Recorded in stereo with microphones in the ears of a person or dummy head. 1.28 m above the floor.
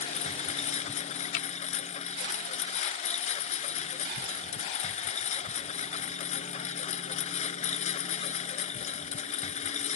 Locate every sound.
0.0 s a lawn mower: 35° left (ahead or behind)
1.3 s a finger snap: 70° left (ahead or behind)